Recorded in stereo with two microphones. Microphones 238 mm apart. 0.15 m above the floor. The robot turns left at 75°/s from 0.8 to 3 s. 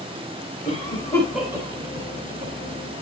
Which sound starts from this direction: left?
A cough, at 0.7 s.